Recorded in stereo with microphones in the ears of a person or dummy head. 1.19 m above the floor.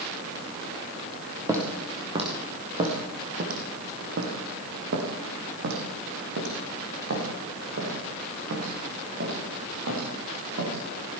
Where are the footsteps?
15° right (ahead or behind), 3 m; by 10.8 s 80° right, 8 m.